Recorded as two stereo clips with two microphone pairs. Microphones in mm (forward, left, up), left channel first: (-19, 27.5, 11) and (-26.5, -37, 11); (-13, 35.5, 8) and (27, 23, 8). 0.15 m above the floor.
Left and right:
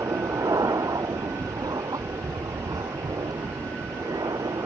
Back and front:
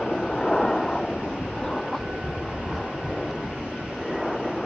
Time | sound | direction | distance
0.0 | an aircraft | 120° right | ?